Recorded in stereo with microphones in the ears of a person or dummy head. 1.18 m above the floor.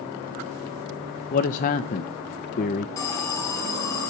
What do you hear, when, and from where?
1.3 s a man speaking: 40° left (ahead or behind), 0.7 m
3.0 s an alarm: 15° left (ahead or behind), 4 m